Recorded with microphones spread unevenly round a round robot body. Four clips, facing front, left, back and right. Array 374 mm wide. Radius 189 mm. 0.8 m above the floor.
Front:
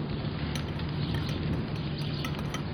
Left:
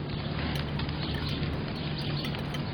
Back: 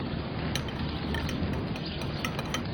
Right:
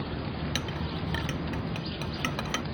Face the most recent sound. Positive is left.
turn(degrees=-100)